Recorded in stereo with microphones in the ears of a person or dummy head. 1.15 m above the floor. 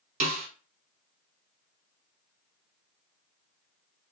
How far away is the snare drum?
About 1.0 m.